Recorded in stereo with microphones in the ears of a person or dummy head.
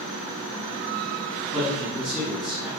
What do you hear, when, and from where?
1.5 s a man speaking: 5° right (ahead or behind), 1.0 m